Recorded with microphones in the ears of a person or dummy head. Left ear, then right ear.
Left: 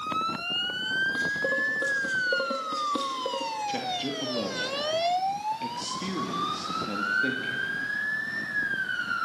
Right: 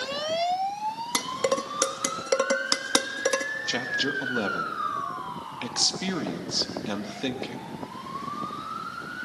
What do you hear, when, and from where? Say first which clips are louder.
1.1 s dishes clattering: even; 65° right (ahead or behind), 1.2 m
3.7 s a man speaking: right 3 dB; 45° right (ahead or behind), 1.8 m